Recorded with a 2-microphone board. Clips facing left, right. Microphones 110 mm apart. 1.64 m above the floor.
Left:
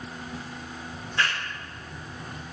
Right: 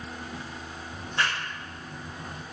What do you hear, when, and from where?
0.9 s a clap: 30° right (ahead or behind), 2 m